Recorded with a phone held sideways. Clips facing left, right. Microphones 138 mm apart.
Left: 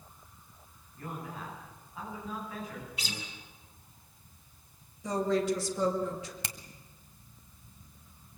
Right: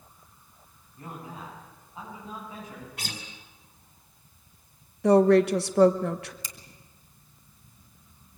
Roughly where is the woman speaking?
Right.